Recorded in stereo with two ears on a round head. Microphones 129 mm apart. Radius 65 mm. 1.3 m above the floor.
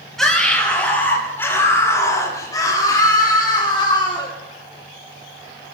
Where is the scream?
5° left (ahead or behind), 5.5 m; by 4.3 s 35° left (ahead or behind), 9 m.